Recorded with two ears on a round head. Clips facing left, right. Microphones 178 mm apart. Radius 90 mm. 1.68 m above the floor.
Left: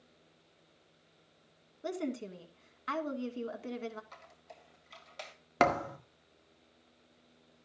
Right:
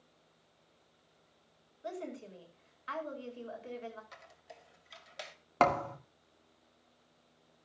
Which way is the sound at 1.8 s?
60° left (ahead or behind).